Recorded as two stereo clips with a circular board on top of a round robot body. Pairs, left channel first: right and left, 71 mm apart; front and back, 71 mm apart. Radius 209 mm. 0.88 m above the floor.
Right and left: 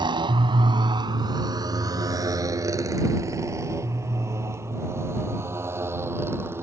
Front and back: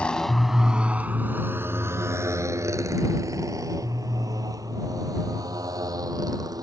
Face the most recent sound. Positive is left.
turn(degrees=145)